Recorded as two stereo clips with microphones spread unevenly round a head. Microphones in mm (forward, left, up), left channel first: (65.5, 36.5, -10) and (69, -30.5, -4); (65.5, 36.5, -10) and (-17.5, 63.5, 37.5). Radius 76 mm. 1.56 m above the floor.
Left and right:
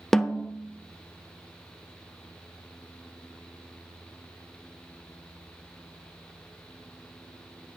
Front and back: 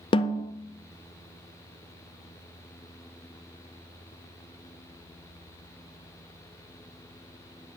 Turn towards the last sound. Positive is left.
turn(degrees=10)